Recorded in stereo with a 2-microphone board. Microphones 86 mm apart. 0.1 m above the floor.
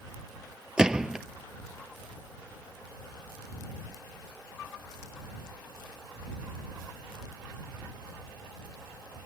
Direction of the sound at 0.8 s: 10° right (ahead or behind).